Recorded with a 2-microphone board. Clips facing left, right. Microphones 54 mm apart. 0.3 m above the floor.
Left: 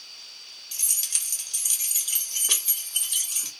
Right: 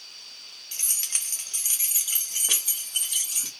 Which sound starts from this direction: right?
Keys jangling, at 0.7 s.